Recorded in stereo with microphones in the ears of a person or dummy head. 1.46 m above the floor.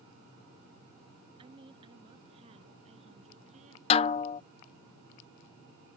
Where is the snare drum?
35° left (ahead or behind).